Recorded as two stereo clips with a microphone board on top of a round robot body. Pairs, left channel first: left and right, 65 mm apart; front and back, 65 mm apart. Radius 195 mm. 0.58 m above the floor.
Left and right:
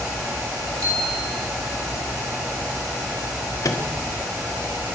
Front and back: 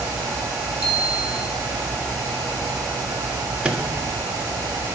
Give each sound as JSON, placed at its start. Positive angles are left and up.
{"t": 0.8, "sound": "a bicycle bell", "azimuth_deg": -105, "distance_m": 9.5}
{"t": 3.6, "sound": "a microwave", "azimuth_deg": 110, "distance_m": 1.6}